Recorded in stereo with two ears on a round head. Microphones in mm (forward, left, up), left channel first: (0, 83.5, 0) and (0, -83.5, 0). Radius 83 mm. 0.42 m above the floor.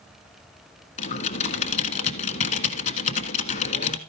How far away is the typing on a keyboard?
About 1.3 m.